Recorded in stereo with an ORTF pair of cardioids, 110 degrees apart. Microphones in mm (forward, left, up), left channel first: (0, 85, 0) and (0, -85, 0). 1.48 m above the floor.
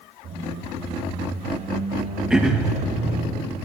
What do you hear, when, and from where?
0.2 s a squeak: 40° right, 5.5 m
2.3 s throat clearing: 5° right, 2 m